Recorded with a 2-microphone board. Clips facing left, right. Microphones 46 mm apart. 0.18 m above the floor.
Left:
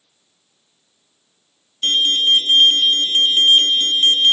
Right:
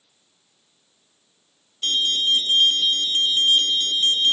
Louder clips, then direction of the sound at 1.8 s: Left 5 dB; 45° left (ahead or behind).